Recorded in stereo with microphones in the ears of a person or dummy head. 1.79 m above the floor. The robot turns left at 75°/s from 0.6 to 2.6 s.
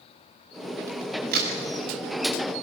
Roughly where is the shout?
No shout in this recording.